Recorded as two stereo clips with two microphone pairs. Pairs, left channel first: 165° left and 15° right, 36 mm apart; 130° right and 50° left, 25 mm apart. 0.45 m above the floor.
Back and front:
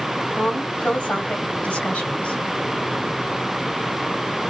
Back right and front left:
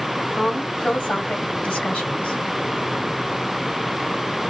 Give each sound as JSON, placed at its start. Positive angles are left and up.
{"t": 0.3, "sound": "a woman speaking", "azimuth_deg": -145, "distance_m": 2.0}